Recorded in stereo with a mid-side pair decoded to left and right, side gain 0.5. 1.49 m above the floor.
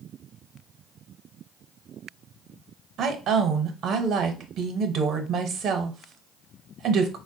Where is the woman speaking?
65° right, 0.8 m.